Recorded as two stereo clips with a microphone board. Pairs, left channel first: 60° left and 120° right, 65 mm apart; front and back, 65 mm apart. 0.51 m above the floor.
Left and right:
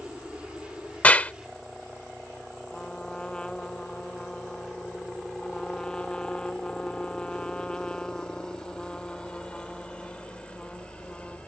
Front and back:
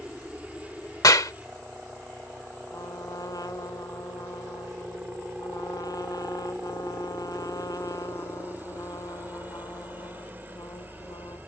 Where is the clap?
5° right.